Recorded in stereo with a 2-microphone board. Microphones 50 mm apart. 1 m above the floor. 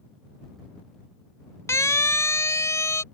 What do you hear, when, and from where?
1.7 s a siren: 80° left; by 3.0 s 75° left (ahead or behind)